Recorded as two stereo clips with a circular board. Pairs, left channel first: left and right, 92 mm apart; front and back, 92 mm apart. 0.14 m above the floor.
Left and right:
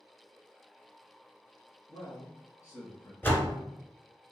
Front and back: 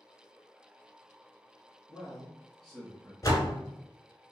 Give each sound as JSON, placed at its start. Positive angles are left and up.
{"t": 1.9, "sound": "a man speaking", "azimuth_deg": 85, "distance_m": 2.0}
{"t": 3.2, "sound": "a door slam", "azimuth_deg": 30, "distance_m": 1.0}